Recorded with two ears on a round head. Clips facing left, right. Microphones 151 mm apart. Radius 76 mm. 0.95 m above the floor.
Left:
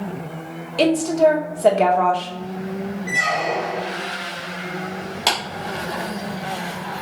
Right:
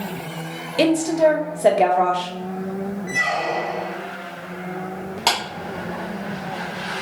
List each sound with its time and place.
0.8 s a woman speaking: 10° right (ahead or behind), 0.7 m
3.1 s a squeak: 10° left (ahead or behind), 0.6 m
5.3 s a clap: 5° left (ahead or behind), 2.5 m